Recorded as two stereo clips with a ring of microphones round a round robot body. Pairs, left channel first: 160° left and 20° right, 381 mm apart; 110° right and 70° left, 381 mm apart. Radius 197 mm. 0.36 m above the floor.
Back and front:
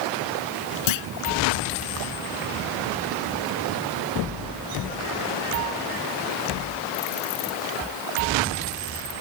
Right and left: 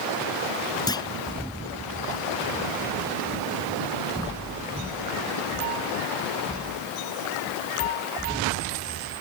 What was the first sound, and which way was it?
A clunk, 165° left.